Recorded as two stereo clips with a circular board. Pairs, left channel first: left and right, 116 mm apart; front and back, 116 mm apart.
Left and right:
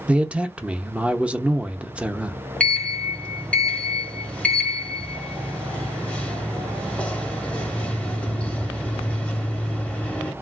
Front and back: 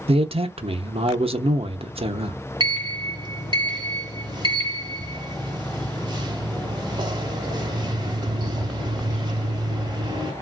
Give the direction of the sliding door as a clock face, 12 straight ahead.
7 o'clock.